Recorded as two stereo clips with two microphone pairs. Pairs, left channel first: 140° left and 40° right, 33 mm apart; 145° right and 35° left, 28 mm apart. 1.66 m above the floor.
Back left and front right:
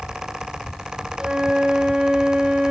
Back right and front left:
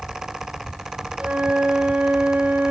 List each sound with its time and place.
1.2 s a flute: 25° left, 1.6 m